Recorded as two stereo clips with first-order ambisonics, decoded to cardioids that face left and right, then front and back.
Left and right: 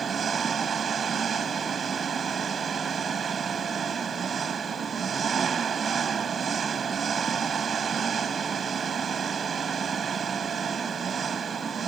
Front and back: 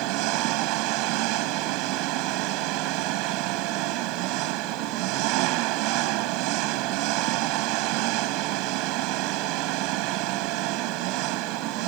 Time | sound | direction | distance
0.0 | an engine running | 160° right | ?